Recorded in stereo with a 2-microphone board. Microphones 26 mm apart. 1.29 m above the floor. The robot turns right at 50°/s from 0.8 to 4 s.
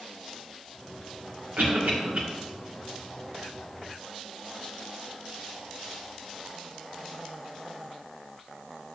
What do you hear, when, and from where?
1.6 s a cough: 75° right (ahead or behind), 1.1 m; by 2.2 s 45° right (ahead or behind), 1.1 m